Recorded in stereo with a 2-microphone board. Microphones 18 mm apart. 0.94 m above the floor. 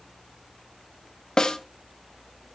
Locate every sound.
1.4 s a snare drum: 40° left (ahead or behind), 1.1 m